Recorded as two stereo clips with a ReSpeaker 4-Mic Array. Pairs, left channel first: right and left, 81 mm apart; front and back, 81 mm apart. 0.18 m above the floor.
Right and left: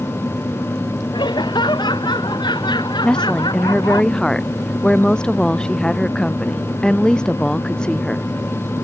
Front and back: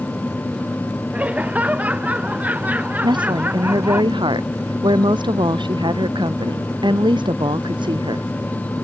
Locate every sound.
1.1 s laughter: 110° right
3.0 s a woman speaking: 170° right